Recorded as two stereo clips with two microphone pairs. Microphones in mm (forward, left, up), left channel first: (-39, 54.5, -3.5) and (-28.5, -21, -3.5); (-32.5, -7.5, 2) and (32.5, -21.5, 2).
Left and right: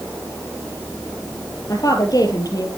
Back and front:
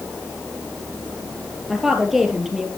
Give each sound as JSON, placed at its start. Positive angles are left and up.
{"t": 1.7, "sound": "a woman speaking", "azimuth_deg": 75, "distance_m": 2.5}